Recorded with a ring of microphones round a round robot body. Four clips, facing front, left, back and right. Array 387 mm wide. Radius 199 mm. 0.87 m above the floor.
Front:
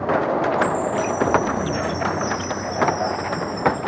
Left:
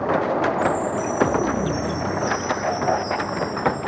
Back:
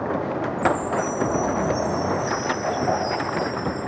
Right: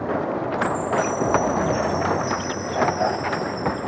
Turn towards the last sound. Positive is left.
turn(degrees=20)